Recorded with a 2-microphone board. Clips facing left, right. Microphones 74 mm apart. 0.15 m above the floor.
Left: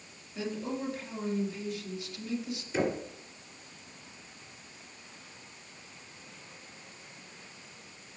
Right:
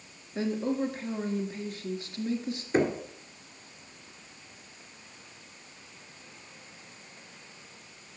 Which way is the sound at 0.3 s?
45° right (ahead or behind).